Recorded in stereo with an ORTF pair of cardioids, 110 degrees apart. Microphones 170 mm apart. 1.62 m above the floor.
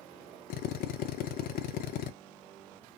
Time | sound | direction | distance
0.5 | a drill | 65° left | 0.6 m